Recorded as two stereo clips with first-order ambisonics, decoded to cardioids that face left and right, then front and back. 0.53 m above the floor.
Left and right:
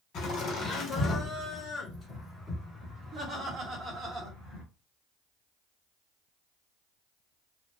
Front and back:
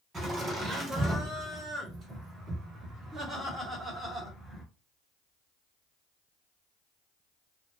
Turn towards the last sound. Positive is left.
turn(degrees=-100)